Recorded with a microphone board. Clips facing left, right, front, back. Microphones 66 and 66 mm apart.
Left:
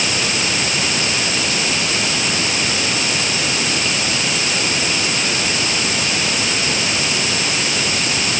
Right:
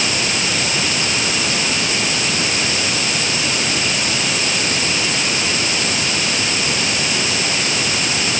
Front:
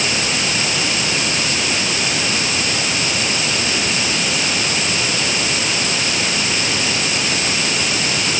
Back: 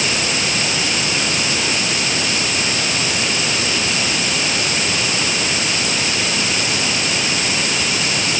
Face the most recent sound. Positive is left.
No sound to turn to.